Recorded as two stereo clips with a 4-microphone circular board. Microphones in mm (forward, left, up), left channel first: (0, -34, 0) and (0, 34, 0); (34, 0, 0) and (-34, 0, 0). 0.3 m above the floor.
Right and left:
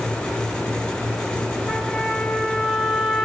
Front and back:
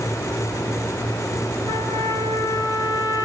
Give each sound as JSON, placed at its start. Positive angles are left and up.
{"t": 1.7, "sound": "a trumpet", "azimuth_deg": 10, "distance_m": 8.0}